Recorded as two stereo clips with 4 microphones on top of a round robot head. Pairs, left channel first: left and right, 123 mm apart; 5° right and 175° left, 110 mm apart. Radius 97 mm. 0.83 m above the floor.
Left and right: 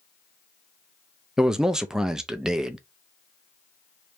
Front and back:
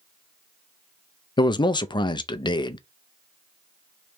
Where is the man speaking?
5° right, 0.5 m.